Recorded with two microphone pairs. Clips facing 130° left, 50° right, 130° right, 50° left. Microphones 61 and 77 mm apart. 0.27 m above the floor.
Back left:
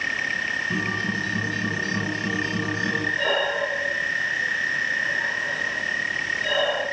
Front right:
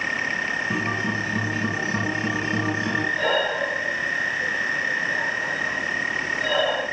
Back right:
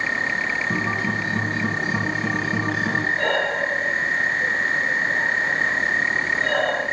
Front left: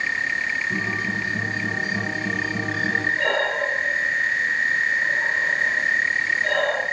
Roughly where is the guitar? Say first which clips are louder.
Front right 1 dB, back right 2 dB; behind right.